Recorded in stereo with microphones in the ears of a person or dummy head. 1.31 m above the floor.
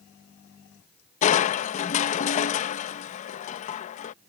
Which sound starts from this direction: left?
Crushing, at 1.2 s.